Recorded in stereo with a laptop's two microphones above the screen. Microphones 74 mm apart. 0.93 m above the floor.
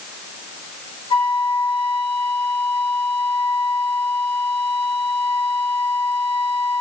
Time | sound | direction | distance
1.1 | a flute | 75° left (ahead or behind) | 2 m